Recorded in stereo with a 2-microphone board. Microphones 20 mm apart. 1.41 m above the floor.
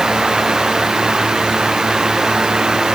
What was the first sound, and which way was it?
Only background noise.